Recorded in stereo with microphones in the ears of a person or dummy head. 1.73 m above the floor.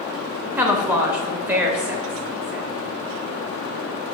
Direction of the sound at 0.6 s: 15° right (ahead or behind).